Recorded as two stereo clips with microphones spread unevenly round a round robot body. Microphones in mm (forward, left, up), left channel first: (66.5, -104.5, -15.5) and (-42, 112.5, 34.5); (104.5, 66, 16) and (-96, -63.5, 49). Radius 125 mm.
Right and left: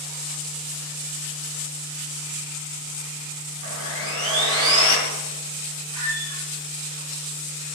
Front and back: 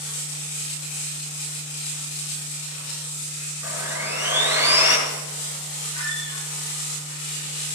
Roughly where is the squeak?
Behind left.